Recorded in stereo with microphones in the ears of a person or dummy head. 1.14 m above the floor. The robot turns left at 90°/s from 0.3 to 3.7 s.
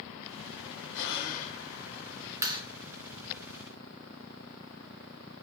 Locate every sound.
0.9 s breathing: 85° left, 3.5 m; by 1.6 s 25° left, 3.5 m
2.4 s a clap: 20° right (ahead or behind), 3 m; by 2.6 s 35° right (ahead or behind), 3 m